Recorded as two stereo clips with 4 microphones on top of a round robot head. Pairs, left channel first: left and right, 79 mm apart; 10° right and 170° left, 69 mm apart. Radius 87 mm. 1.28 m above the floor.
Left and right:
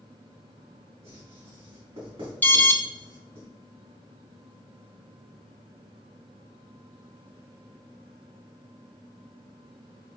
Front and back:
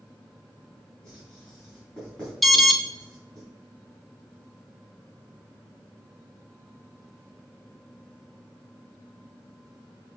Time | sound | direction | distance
1.0 | writing | 90° right | 3.5 m
2.4 | an alarm | 75° left | 1.1 m